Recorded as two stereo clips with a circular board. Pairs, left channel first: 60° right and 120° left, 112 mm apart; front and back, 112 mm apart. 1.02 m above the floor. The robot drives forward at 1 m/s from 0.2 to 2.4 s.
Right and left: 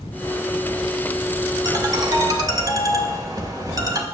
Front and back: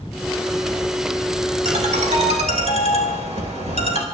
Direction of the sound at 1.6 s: 170° left.